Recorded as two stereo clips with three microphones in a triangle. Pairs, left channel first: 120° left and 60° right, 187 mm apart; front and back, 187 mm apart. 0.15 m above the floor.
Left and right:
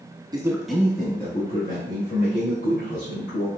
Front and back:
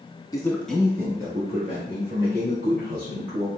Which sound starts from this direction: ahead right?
A man speaking, at 0.3 s.